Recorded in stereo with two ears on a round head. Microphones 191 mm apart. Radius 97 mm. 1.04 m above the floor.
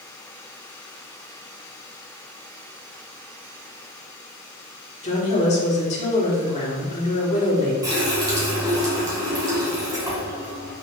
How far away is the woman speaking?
About 2.5 m.